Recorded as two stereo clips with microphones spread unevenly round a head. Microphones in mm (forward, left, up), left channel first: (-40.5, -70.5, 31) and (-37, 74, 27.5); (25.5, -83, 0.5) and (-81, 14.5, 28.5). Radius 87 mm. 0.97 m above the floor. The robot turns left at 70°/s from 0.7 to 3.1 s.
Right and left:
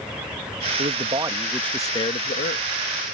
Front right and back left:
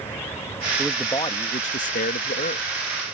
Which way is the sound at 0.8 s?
50° left.